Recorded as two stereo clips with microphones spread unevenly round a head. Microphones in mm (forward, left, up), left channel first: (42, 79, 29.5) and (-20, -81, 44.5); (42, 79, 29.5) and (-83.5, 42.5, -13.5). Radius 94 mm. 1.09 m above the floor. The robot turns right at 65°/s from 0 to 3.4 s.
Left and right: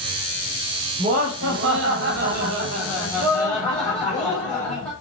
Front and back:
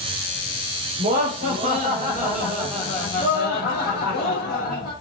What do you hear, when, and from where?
1.0 s laughter: 165° right, 4.5 m; by 4.9 s 10° right, 4.5 m